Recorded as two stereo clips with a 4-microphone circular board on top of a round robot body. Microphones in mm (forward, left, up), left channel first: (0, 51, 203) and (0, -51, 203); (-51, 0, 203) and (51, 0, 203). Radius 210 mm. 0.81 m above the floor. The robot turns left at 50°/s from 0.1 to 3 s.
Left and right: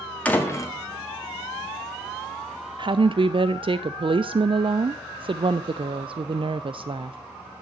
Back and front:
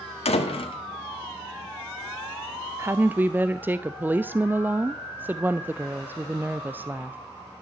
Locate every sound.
0.2 s a door slam: 170° left, 1.6 m; by 0.8 s 140° left, 1.6 m
2.8 s a woman speaking: 60° right, 0.6 m; by 7.2 s 70° right, 0.6 m